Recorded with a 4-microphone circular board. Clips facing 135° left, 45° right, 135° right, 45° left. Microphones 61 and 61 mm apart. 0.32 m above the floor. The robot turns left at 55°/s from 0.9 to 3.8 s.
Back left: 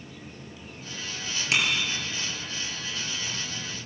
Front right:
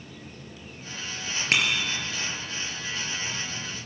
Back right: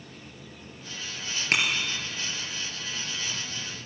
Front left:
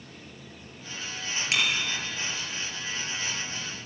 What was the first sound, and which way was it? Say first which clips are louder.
A bicycle bell: front right 1 dB, back right 2 dB; 90° right.